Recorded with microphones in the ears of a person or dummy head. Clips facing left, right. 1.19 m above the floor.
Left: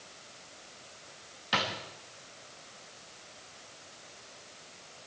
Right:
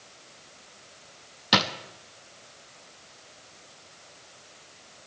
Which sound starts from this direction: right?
A drawer, at 1.5 s.